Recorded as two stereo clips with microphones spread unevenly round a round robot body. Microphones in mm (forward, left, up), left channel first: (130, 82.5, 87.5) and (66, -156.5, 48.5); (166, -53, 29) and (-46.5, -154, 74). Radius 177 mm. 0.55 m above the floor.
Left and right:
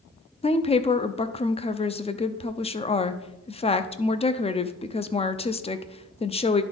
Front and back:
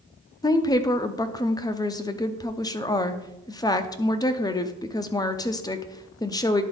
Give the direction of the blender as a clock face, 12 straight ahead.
I don't hear a blender.